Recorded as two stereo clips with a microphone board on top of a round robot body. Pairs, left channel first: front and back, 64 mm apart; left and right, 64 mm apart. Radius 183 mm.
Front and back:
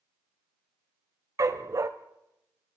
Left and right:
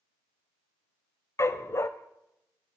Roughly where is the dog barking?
Behind left.